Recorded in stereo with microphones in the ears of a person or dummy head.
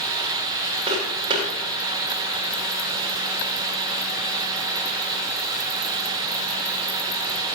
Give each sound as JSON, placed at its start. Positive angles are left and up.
{"t": 0.9, "sound": "footsteps", "side_deg": -30, "distance_m": 5.0}